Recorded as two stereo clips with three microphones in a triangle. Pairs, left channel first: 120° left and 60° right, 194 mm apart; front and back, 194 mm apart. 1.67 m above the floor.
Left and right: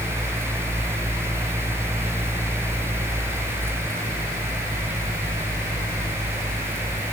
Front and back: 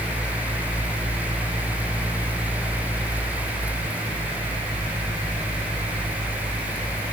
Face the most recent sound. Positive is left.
No sound to turn to.